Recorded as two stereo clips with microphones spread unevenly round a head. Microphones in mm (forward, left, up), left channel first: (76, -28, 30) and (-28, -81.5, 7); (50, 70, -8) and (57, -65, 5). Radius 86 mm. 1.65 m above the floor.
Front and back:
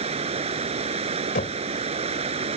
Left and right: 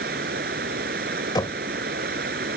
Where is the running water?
120° right.